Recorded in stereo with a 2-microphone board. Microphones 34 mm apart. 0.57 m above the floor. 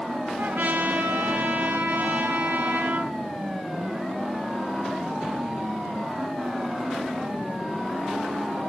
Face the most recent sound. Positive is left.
turn(degrees=-75)  # may be behind; listen again after turning